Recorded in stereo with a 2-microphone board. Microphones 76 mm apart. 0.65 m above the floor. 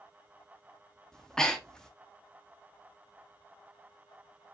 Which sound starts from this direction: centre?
Breathing, at 1.1 s.